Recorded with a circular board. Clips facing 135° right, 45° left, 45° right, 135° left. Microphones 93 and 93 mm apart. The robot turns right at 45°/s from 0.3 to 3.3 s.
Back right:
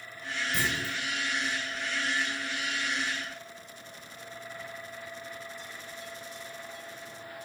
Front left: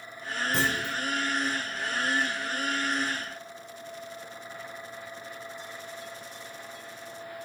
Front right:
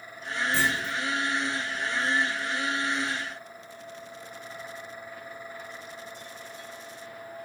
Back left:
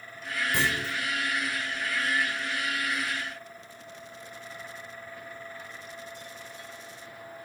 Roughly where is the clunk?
Ahead left.